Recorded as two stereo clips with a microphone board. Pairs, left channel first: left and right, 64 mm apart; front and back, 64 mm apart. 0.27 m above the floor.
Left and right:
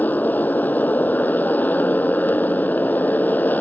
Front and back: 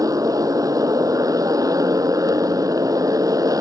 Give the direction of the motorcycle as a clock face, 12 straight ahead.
7 o'clock.